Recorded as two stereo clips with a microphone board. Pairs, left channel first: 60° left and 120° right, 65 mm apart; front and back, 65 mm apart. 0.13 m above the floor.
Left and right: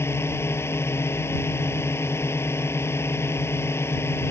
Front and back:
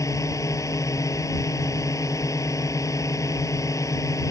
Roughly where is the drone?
Ahead.